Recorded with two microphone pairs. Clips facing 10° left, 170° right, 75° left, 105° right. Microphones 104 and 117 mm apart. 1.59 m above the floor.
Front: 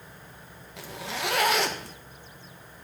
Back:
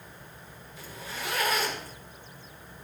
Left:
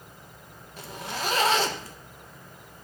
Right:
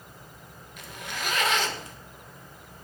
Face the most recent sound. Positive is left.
turn(degrees=20)